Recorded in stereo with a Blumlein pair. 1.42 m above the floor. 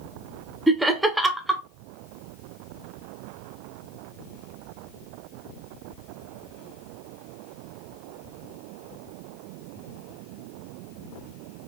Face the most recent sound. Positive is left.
turn(degrees=-5)